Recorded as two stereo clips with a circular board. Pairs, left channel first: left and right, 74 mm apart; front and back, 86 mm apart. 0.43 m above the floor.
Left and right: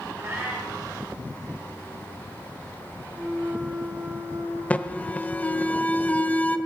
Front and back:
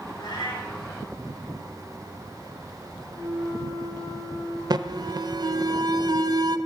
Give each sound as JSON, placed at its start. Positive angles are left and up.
{"t": 0.2, "sound": "a cat meowing", "azimuth_deg": -30, "distance_m": 6.5}
{"t": 3.1, "sound": "a flute", "azimuth_deg": -25, "distance_m": 3.5}
{"t": 4.7, "sound": "an alarm", "azimuth_deg": 155, "distance_m": 0.8}